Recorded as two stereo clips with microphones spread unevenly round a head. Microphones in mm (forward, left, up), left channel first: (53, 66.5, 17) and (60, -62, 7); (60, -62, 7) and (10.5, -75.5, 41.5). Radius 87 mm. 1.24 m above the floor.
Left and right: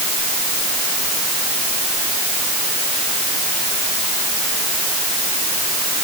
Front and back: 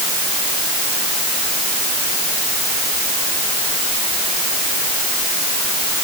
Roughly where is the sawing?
No sawing in this recording.